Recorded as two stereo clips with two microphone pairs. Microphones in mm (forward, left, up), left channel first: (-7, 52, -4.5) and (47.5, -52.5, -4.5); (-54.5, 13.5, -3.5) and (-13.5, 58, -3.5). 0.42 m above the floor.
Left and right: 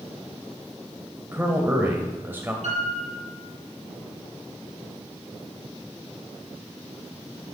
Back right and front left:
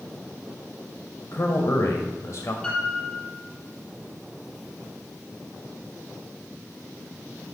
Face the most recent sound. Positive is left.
turn(degrees=-60)